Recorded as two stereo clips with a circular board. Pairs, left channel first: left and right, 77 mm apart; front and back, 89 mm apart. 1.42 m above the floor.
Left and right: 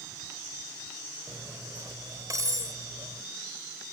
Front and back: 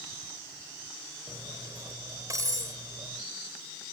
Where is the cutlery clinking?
130° right.